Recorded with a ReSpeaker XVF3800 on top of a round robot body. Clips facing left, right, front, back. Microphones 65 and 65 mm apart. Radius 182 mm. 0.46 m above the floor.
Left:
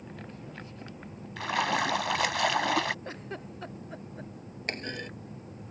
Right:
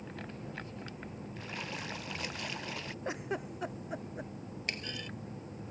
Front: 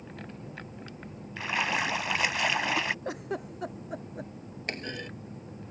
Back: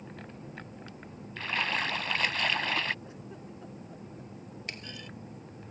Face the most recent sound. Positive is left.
turn(degrees=45)